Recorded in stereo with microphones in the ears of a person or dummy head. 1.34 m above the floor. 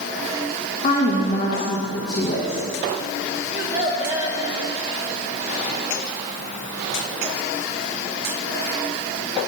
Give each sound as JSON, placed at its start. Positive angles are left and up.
{"t": 0.8, "sound": "a woman speaking", "side_deg": 30, "distance_m": 1.5}
{"t": 3.5, "sound": "a child speaking", "side_deg": -20, "distance_m": 2.5}